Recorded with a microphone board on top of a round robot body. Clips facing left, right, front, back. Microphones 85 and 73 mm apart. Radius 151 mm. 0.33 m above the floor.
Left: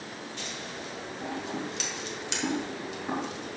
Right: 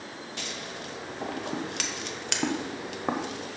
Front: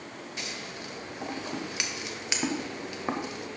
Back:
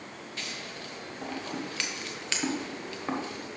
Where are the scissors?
70° right, 1.0 m.